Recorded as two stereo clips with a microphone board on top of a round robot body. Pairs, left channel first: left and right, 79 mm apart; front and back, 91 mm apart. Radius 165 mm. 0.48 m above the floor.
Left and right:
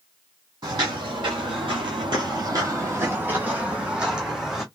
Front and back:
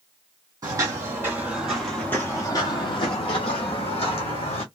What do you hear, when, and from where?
0.6 s footsteps: 130° right, 1.1 m; by 4.6 s 5° right, 1.6 m